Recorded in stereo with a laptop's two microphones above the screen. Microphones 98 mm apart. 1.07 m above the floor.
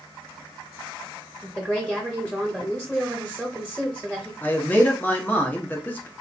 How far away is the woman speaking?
About 1.1 m.